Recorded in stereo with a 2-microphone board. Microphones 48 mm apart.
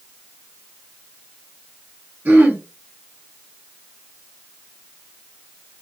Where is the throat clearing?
40° right (ahead or behind), 0.9 m.